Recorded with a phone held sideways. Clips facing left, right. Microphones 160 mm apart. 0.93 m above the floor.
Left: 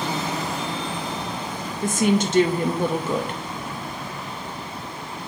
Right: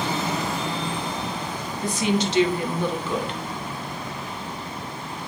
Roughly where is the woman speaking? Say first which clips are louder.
Left 3 dB; left.